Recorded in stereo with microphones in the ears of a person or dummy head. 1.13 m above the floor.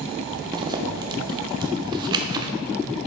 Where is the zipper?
20° right (ahead or behind), 0.5 m.